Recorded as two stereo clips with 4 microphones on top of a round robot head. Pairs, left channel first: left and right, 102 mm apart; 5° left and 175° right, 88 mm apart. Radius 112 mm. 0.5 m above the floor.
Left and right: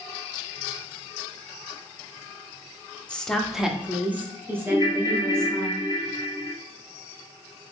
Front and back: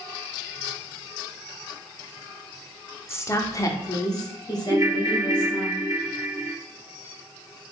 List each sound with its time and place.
3.1 s a woman speaking: 20° left, 0.8 m; by 5.7 s 30° right, 1.9 m
4.7 s a ringtone: 135° left, 0.8 m